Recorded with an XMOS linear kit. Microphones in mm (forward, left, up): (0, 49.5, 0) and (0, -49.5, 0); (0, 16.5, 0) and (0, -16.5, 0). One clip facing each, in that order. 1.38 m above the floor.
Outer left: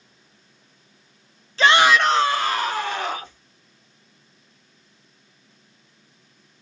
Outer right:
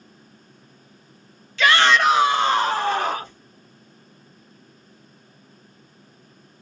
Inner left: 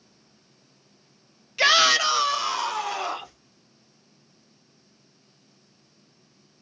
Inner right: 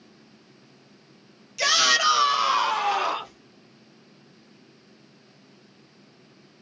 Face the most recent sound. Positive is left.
turn(degrees=-40)  # may be behind; listen again after turning